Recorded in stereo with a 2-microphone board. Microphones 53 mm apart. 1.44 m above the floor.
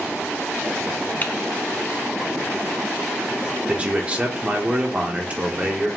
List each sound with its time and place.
1.2 s typing on a keyboard: 35° left (ahead or behind), 0.6 m
3.7 s a man speaking: 25° right (ahead or behind), 0.8 m